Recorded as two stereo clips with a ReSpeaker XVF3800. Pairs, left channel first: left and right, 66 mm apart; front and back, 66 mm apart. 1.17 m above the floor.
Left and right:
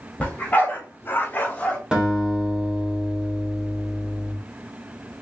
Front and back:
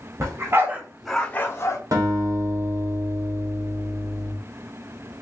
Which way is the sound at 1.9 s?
165° right.